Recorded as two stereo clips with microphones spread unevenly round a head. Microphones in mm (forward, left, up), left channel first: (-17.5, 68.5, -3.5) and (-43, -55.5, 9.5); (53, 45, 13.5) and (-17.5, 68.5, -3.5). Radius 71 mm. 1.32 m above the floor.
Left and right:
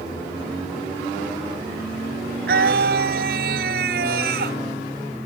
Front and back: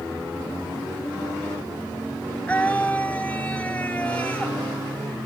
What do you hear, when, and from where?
2.5 s a scream: 100° right